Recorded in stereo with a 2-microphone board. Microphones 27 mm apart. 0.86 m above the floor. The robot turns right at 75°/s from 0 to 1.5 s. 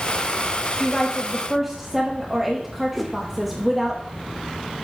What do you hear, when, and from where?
0.8 s a woman speaking: 135° left, 1.1 m; by 4.0 s 175° right, 1.1 m
3.0 s a whoosh: centre (ahead or behind), 1.0 m